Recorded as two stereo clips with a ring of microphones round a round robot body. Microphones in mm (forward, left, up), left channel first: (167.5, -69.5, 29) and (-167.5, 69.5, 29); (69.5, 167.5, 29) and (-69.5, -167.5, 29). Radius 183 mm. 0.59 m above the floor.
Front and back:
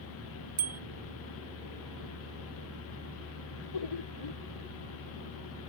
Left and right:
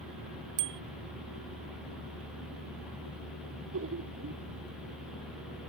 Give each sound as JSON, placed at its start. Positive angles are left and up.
{"t": 0.6, "sound": "a bicycle bell", "azimuth_deg": -135}
{"t": 3.5, "sound": "laughter", "azimuth_deg": -55}